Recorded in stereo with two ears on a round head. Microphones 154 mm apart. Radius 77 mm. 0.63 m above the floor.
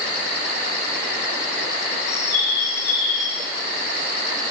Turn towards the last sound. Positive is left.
turn(degrees=70)  # may be behind; listen again after turning